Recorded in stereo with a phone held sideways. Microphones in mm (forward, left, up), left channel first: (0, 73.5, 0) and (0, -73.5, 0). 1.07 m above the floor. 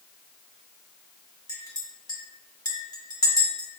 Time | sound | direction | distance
1.5 | a clink | 25° left (ahead or behind) | 0.9 m